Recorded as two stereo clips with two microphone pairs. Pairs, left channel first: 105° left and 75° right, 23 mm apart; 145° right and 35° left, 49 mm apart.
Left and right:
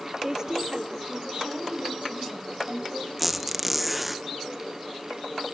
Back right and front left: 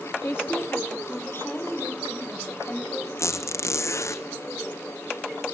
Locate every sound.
0.2 s a woman speaking: 125° right, 1.7 m; by 3.1 s 80° right, 3.5 m
3.2 s a squeak: 160° right, 0.5 m